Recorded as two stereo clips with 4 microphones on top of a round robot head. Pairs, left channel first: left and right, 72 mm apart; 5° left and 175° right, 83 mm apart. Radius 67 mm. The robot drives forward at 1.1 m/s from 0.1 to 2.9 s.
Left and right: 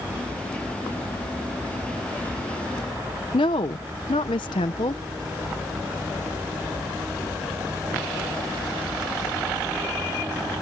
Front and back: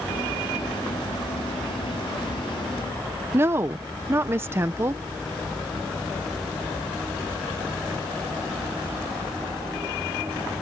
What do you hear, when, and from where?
3.3 s a woman speaking: 125° left